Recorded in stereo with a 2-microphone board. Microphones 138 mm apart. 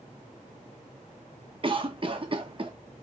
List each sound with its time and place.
1.6 s a cough: 40° right (ahead or behind), 0.8 m